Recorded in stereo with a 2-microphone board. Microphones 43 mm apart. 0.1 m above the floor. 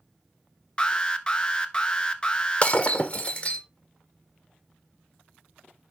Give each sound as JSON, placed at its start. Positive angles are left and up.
{"t": 0.8, "sound": "an alarm", "side_deg": 20, "distance_m": 0.8}
{"t": 2.6, "sound": "breaking glass", "side_deg": 30, "distance_m": 1.1}